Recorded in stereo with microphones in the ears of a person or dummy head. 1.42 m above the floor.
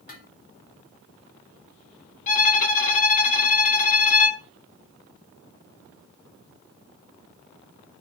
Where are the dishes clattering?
55° left (ahead or behind), 3 m.